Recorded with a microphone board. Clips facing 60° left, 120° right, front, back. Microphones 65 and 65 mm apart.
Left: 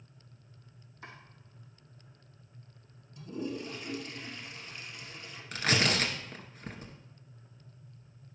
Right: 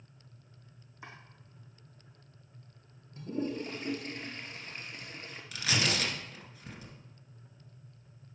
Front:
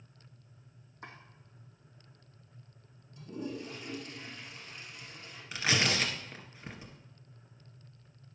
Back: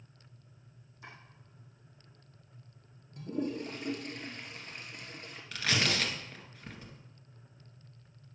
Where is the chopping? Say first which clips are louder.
Even, front 2 dB; 45° right, 3.5 m.